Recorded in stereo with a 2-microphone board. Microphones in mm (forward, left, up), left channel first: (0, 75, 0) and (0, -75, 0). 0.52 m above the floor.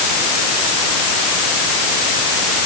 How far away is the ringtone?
No ringtone in this recording.